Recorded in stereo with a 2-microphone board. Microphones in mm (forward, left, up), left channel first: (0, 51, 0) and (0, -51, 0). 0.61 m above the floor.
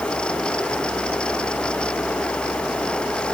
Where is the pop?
No pop in this recording.